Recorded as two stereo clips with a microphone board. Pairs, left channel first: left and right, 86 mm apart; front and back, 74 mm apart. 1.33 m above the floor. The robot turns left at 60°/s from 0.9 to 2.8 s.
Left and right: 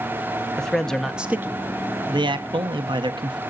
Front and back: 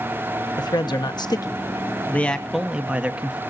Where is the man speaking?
5° left, 1.0 m; by 3.4 s 110° right, 1.0 m.